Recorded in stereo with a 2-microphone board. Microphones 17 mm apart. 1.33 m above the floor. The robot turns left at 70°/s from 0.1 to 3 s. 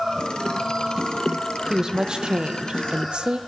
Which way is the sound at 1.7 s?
20° right.